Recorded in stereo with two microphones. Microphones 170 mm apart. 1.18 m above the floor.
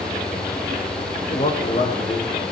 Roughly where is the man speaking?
Left.